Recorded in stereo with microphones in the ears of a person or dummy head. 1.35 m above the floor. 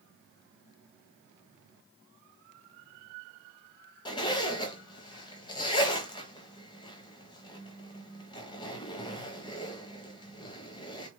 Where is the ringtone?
I don't hear a ringtone.